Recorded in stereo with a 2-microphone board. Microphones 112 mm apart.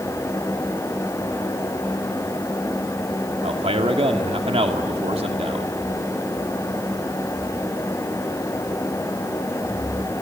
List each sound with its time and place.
3.4 s a man speaking: 60° right (ahead or behind), 2 m